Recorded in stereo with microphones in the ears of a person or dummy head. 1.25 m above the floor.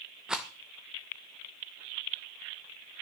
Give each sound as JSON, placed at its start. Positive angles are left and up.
{"t": 0.3, "sound": "a rattle", "side_deg": -5, "distance_m": 0.5}